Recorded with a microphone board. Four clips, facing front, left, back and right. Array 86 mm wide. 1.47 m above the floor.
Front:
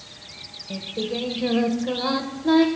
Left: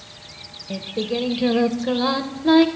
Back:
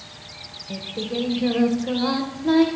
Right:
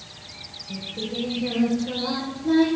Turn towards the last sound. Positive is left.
turn(degrees=90)